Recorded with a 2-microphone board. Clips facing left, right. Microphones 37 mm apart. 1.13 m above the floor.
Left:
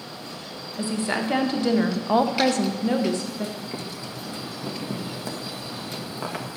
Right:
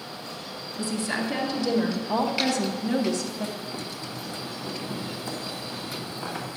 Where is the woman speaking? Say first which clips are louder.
Left 3 dB; 40° left (ahead or behind), 1.5 m; by 3.5 s 25° left (ahead or behind), 1.0 m.